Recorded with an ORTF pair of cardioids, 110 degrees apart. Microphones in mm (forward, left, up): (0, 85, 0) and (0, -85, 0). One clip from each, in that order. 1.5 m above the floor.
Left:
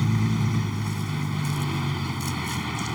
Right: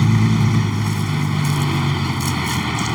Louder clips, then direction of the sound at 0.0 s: Right 8 dB; 45° right.